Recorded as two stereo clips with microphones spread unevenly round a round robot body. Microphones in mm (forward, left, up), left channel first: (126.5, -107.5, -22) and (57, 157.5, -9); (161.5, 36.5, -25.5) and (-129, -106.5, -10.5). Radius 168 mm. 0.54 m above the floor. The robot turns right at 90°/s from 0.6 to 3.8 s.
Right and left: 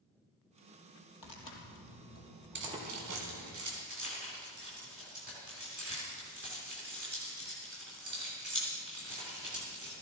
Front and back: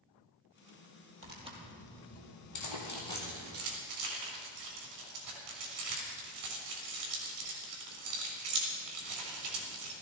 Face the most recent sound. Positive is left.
turn(degrees=165)